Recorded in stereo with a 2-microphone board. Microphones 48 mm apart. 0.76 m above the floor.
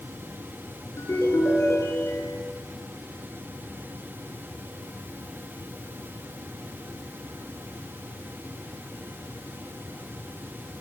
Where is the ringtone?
65° left (ahead or behind), 7.5 m.